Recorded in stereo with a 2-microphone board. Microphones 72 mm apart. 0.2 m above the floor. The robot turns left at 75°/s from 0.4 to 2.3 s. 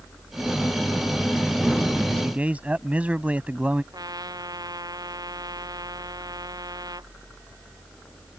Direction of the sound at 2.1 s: 20° right (ahead or behind).